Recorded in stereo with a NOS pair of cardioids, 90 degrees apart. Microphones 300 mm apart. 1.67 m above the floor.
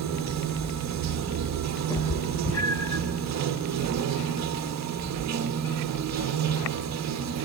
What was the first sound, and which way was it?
Running water, 65° right.